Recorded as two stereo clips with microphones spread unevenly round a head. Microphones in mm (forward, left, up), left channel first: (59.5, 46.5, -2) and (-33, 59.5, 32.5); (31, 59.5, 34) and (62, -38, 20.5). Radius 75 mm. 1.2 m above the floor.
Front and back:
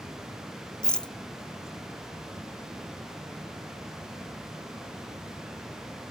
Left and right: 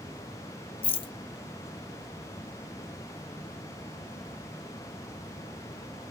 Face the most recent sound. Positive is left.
turn(degrees=70)